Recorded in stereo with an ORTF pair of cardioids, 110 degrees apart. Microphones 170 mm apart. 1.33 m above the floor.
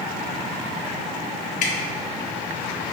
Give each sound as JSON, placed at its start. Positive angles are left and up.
{"t": 1.6, "sound": "dripping", "azimuth_deg": 50, "distance_m": 0.7}